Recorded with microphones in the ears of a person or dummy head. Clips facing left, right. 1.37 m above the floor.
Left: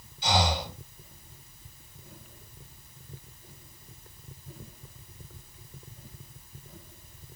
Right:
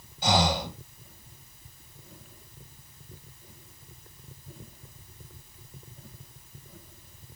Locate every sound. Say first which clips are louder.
0.2 s breathing: right 2 dB; 50° right (ahead or behind), 1.2 m